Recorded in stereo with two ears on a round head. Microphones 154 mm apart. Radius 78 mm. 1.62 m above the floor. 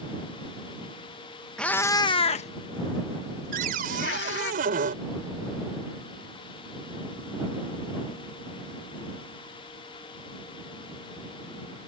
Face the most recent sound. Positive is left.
turn(degrees=-55)  # may be behind; listen again after turning